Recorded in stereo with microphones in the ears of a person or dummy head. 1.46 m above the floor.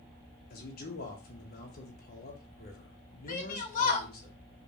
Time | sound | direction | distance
0.5 | a man speaking | 45° left (ahead or behind) | 0.9 m
3.3 | a shout | 40° left (ahead or behind) | 0.7 m